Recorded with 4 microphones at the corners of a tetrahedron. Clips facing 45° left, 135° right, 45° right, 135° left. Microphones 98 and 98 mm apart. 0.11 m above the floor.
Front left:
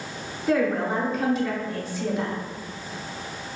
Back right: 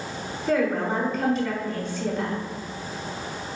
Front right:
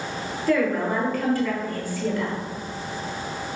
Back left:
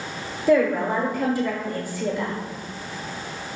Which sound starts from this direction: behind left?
A woman speaking, at 0.5 s.